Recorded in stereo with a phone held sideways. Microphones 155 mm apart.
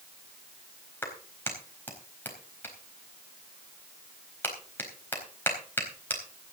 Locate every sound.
1.0 s a clap: 15° left (ahead or behind), 4 m